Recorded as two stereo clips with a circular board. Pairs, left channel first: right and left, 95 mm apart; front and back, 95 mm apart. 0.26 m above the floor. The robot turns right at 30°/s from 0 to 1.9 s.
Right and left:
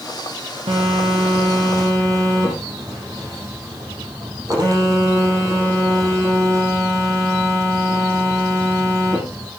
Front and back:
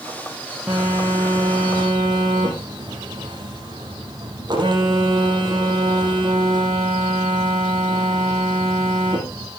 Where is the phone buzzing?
105° left, 5 m; by 9.5 s 140° left, 5 m.